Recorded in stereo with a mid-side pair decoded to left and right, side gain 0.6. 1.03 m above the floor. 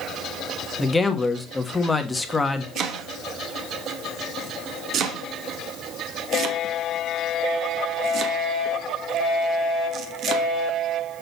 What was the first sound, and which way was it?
A man speaking, 15° left.